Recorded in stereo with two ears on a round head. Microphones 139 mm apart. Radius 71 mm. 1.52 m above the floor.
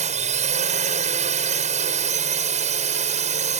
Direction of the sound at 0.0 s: 50° right (ahead or behind).